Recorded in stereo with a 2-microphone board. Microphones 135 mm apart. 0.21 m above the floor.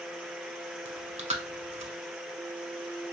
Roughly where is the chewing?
Right.